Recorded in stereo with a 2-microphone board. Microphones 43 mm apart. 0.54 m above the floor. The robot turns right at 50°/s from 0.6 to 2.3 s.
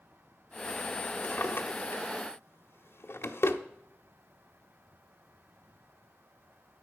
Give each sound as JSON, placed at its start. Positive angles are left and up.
{"t": 1.2, "sound": "a drawer", "side_deg": 40, "distance_m": 1.0}